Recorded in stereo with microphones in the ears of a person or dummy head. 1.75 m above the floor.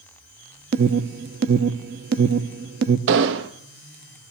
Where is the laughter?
No laughter in this recording.